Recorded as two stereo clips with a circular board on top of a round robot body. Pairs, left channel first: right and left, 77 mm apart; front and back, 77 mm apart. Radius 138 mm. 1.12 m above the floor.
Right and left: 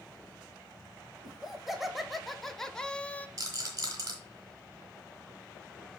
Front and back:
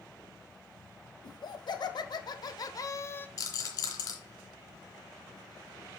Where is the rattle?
45° left, 2.5 m.